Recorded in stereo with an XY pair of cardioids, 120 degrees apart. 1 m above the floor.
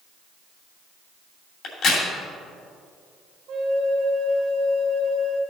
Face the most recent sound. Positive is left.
turn(degrees=-65)